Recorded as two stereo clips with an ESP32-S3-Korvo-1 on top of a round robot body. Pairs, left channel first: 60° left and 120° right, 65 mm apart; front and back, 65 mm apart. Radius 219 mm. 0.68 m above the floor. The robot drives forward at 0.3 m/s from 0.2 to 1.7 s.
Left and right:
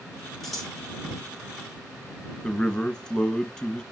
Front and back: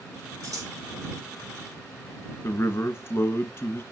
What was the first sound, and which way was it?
Scissors, 150° left.